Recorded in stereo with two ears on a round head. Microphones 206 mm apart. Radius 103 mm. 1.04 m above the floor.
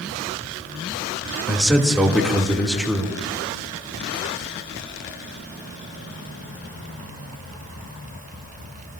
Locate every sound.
1.5 s a man speaking: centre (ahead or behind), 2.5 m